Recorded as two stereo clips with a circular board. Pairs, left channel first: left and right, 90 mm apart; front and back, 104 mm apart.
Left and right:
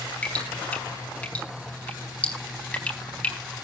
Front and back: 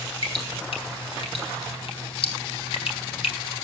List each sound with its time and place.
0.2 s dripping: 15° left, 4 m